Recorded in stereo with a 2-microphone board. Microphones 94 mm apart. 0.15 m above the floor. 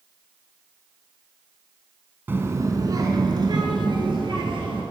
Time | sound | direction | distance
2.3 | a child speaking | 25° right (ahead or behind) | 0.7 m